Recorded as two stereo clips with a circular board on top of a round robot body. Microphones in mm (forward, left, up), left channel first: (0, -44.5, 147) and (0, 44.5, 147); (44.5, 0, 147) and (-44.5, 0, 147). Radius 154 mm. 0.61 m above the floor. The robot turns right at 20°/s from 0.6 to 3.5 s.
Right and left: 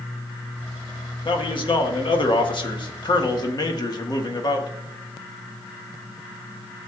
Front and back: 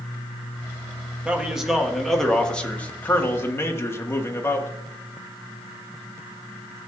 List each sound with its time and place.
1.2 s a man speaking: 105° right, 1.6 m; by 4.7 s 60° right, 1.6 m